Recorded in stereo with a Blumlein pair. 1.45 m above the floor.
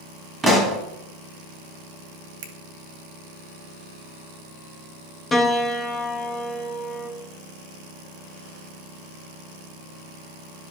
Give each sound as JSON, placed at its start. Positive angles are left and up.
{"t": 0.4, "sound": "a pop", "azimuth_deg": -10, "distance_m": 1.4}
{"t": 2.4, "sound": "a finger snap", "azimuth_deg": -50, "distance_m": 0.8}
{"t": 5.3, "sound": "a piano", "azimuth_deg": 15, "distance_m": 1.0}